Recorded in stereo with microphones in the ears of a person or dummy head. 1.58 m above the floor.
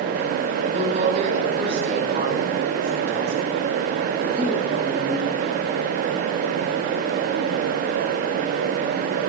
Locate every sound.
0.7 s a woman speaking: 40° right (ahead or behind), 7 m